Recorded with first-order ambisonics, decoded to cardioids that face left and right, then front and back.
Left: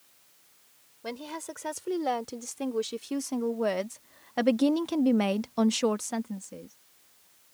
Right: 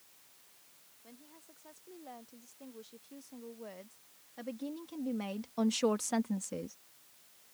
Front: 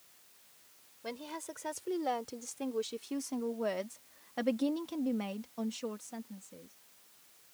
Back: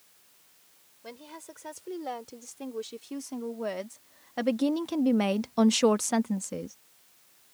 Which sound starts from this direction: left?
A woman speaking, at 1.0 s.